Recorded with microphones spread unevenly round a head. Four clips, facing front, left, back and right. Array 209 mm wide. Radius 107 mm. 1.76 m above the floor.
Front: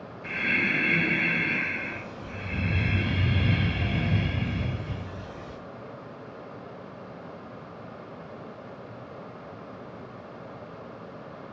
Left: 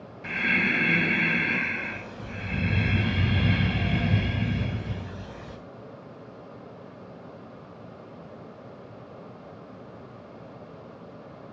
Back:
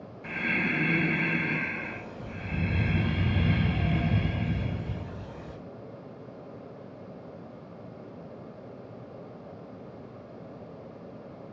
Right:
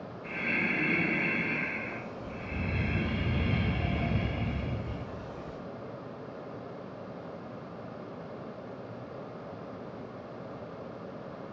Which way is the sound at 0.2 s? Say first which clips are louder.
Left 6 dB, front 1 dB; 100° left.